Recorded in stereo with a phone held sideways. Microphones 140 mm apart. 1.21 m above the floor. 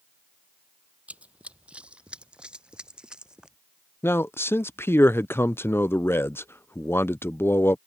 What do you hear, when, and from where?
1.1 s running footsteps: 10° right (ahead or behind); by 3.6 s 5° right (ahead or behind)
4.0 s a man speaking: 15° left (ahead or behind)